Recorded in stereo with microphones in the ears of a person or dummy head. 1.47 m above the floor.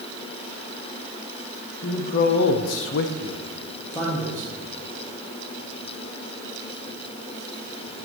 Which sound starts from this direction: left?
A man speaking, at 1.8 s.